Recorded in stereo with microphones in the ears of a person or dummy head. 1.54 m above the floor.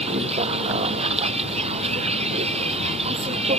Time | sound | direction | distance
0.0 | a vehicle | 30° right (ahead or behind) | ?